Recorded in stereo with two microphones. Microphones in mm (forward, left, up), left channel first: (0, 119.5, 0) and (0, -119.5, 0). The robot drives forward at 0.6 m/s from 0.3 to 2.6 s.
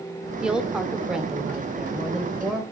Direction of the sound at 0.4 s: 5° right (ahead or behind).